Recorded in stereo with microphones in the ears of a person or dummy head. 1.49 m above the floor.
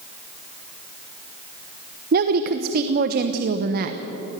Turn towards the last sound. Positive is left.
turn(degrees=-55)  # may be behind; listen again after turning